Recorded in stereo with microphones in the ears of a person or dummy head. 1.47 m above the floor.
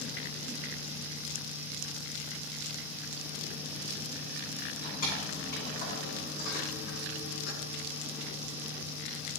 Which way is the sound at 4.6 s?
45° left (ahead or behind).